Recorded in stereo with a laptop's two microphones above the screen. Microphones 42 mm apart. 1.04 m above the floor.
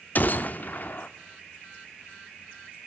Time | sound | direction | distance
0.1 | a gunshot | 40° left (ahead or behind) | 0.8 m